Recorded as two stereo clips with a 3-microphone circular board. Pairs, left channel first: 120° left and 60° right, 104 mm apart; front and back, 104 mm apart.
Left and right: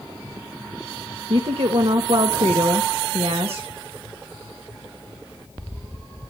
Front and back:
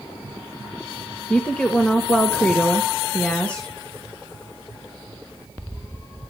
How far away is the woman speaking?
About 1.7 m.